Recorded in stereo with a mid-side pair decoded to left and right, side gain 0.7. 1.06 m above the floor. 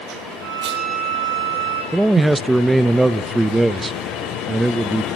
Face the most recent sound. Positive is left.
turn(degrees=-10)